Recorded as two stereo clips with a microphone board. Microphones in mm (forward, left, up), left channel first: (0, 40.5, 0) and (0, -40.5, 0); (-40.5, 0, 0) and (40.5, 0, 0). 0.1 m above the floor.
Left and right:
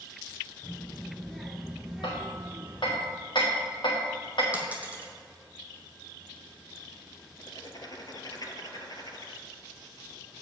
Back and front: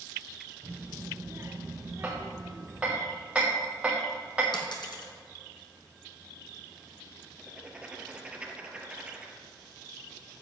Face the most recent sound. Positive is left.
turn(degrees=75)